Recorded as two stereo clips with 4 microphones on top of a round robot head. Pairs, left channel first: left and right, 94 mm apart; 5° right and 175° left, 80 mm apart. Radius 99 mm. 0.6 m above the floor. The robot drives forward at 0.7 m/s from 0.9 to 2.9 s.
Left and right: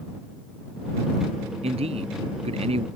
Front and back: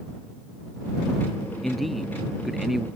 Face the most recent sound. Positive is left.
turn(degrees=-100)